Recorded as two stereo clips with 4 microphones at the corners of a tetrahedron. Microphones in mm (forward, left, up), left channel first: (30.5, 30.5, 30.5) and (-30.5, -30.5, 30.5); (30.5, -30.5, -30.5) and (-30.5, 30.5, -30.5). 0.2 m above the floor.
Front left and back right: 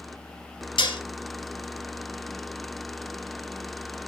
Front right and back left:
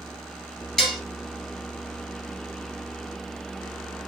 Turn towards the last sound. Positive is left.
turn(degrees=40)